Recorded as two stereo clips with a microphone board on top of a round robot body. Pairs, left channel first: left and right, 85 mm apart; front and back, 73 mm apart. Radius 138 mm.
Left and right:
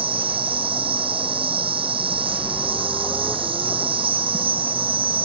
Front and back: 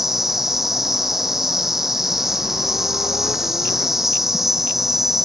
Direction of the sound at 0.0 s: 95° right.